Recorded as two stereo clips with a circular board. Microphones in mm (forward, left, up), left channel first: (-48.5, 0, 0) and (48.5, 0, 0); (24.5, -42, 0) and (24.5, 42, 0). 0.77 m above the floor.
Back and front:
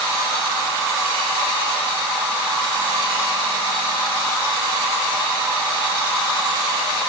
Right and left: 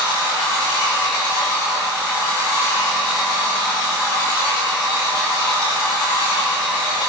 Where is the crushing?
I don't hear crushing.